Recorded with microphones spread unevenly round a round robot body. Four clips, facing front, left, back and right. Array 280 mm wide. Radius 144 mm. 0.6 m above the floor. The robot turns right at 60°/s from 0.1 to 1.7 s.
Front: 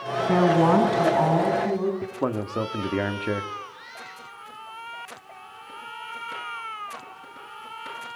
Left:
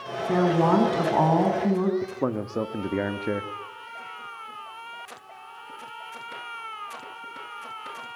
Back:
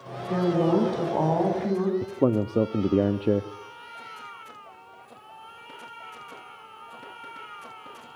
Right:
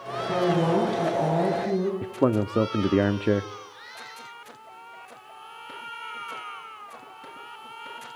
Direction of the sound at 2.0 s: 135° right.